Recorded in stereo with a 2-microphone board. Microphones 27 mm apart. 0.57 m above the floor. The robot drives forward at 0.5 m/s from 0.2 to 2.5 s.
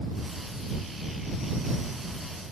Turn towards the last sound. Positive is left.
No sound to turn to.